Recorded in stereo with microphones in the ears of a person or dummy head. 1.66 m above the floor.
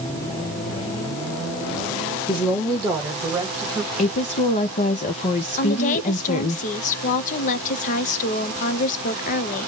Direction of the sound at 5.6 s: 40° left (ahead or behind).